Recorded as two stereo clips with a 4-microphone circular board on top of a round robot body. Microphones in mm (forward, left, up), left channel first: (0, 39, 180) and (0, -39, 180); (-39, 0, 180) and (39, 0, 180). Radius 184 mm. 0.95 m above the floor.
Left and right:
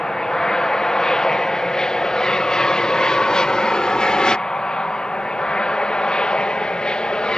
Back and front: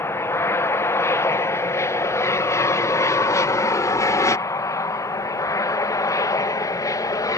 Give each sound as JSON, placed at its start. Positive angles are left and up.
{"t": 0.0, "sound": "an aircraft", "azimuth_deg": 165}